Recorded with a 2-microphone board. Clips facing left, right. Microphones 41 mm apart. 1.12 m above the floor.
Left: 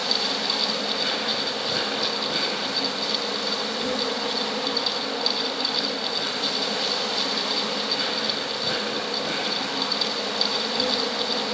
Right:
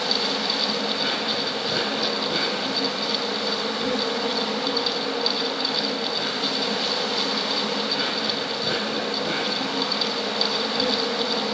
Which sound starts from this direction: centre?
An insect, at 0.0 s.